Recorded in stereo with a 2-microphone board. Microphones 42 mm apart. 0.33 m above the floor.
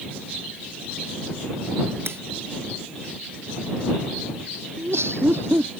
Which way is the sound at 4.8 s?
80° right.